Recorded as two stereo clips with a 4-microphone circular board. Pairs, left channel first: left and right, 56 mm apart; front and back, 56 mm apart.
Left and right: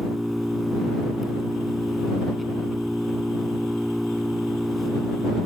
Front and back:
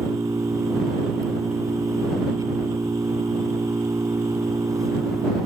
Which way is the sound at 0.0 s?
Straight behind.